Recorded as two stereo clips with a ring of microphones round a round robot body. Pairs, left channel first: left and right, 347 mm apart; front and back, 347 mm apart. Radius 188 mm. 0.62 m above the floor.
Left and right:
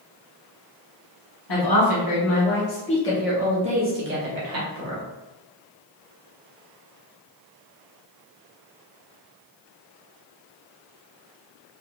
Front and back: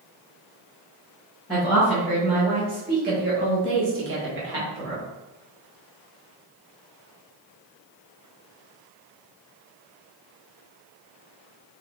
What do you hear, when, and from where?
1.5 s a woman speaking: 90° left, 1.5 m; by 5.0 s 125° right, 1.7 m